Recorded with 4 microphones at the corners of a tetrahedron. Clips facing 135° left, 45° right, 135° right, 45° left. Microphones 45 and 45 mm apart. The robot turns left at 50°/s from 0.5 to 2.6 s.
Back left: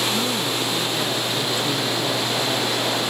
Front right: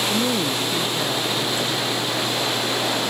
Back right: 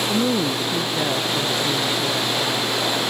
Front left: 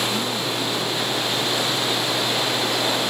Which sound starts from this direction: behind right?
A woman speaking, at 0.1 s.